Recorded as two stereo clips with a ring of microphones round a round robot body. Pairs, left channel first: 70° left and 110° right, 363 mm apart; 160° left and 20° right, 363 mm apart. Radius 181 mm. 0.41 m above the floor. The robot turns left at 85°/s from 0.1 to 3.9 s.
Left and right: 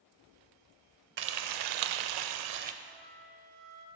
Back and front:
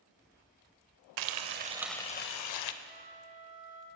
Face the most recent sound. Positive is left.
turn(degrees=-80)